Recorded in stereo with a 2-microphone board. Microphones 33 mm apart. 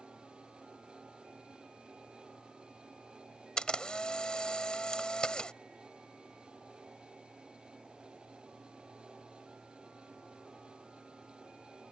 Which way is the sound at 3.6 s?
25° left (ahead or behind).